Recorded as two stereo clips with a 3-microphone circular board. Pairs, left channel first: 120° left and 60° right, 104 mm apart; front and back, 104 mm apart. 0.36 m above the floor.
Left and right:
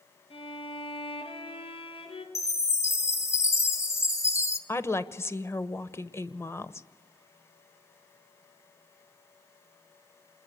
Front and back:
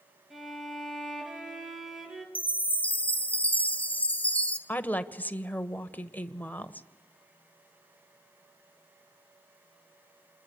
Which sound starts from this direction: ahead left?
A woman speaking, at 4.7 s.